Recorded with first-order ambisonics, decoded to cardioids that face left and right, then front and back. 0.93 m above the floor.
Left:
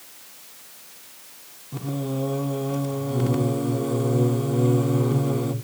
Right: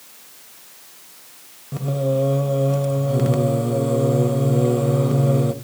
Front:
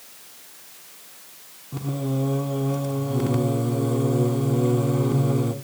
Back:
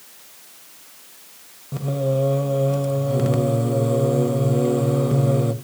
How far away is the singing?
About 1.4 m.